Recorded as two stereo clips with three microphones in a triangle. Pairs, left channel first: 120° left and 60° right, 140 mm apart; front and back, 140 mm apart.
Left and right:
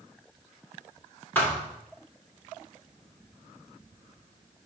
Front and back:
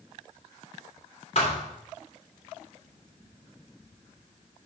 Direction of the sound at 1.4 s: 45° left.